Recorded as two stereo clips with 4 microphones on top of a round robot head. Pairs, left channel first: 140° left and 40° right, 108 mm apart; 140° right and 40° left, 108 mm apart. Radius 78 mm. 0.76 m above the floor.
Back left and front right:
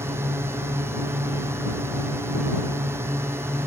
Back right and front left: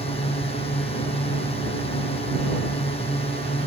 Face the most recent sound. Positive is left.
turn(degrees=-105)